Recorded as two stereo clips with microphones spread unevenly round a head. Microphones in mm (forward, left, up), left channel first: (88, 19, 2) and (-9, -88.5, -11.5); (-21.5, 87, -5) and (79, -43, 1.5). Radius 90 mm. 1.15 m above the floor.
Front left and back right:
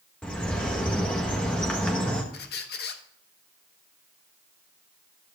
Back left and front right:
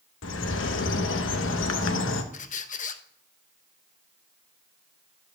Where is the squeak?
85° left, 0.8 m.